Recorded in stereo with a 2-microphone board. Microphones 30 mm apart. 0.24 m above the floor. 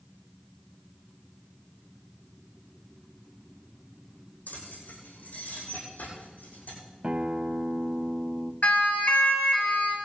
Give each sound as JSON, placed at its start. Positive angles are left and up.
{"t": 4.5, "sound": "keys jangling", "side_deg": 80, "distance_m": 7.5}
{"t": 7.0, "sound": "a guitar", "side_deg": -35, "distance_m": 0.7}
{"t": 8.6, "sound": "a siren", "side_deg": 60, "distance_m": 4.0}